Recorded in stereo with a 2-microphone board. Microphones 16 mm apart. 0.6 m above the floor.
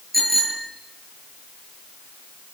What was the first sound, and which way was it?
A bicycle bell, 10° left (ahead or behind).